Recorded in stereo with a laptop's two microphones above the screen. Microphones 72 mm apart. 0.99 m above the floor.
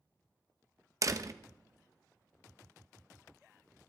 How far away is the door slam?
About 0.8 m.